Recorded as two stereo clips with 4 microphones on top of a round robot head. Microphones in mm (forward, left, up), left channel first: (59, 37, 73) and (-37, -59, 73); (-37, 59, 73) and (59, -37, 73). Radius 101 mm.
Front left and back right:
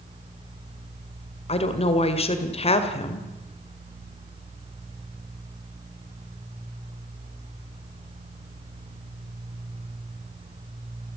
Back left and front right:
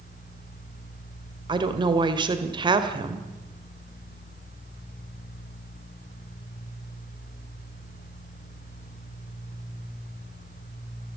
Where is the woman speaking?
5° left, 2 m.